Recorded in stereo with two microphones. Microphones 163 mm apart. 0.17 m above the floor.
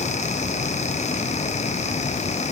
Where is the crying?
No crying in this recording.